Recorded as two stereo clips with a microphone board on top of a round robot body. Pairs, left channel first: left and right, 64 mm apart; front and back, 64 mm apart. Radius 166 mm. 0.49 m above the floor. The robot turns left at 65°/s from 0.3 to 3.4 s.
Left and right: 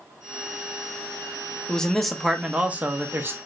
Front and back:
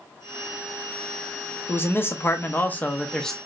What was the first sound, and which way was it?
A man speaking, 25° left.